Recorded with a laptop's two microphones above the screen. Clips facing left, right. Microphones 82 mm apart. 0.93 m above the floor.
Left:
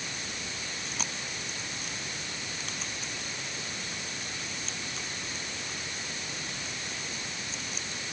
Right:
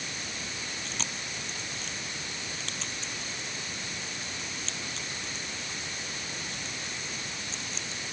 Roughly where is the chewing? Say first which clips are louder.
Even; centre.